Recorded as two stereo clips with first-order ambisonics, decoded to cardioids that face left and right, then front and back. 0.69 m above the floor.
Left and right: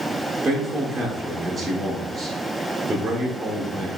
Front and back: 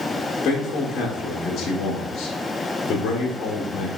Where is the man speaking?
30° right, 0.6 m.